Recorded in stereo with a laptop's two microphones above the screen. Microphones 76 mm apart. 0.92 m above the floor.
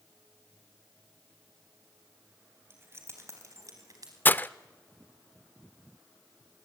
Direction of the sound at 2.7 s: 30° right (ahead or behind).